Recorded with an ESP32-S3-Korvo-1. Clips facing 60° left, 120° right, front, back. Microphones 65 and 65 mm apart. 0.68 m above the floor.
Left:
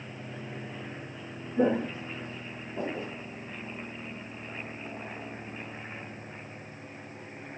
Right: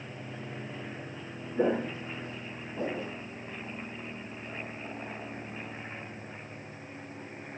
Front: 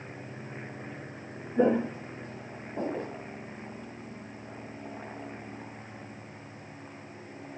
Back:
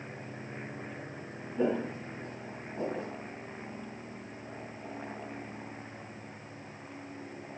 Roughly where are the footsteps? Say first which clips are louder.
Left 2 dB, front 5 dB; ahead right.